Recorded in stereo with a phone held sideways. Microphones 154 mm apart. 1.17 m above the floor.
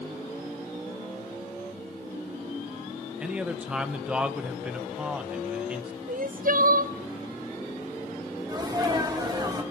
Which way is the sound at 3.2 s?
5° right (ahead or behind).